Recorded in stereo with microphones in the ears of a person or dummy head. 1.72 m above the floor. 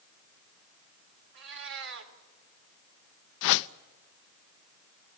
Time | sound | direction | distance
1.3 | a cat meowing | 60° right (ahead or behind) | 2.5 m
3.4 | a whoosh | 65° left (ahead or behind) | 0.6 m